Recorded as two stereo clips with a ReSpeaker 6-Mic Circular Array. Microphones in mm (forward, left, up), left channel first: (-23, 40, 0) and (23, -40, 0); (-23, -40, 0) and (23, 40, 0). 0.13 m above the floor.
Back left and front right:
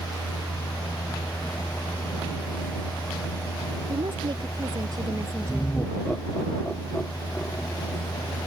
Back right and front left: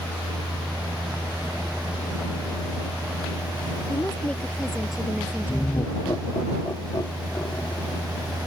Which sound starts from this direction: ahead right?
A woman speaking, at 3.9 s.